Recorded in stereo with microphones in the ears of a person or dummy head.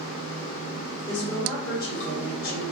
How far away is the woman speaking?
About 1.7 m.